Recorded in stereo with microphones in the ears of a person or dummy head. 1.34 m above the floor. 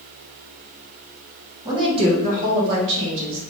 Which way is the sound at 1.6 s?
25° right (ahead or behind).